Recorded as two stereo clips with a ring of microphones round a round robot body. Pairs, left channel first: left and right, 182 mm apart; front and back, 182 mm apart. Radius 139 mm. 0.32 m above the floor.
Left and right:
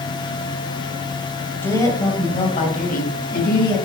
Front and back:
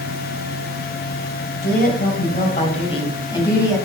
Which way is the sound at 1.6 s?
15° left.